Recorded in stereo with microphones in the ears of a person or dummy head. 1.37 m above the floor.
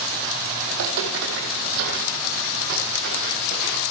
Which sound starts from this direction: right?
Footsteps, at 0.7 s.